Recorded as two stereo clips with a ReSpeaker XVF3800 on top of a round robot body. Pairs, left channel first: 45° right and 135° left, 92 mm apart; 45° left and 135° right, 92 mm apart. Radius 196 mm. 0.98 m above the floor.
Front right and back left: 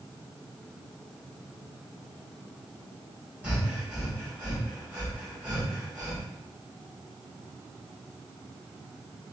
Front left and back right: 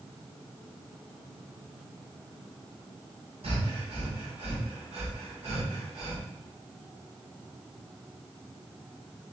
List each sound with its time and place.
3.4 s breathing: 150° right, 3.5 m